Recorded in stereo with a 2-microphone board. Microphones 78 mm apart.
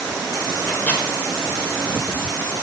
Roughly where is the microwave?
Left.